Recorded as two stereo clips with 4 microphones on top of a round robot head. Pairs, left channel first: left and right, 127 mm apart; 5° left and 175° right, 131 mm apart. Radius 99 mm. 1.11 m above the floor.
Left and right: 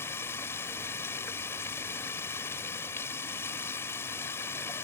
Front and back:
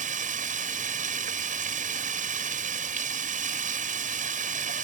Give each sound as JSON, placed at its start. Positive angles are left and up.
{"t": 0.0, "sound": "running water", "azimuth_deg": 165}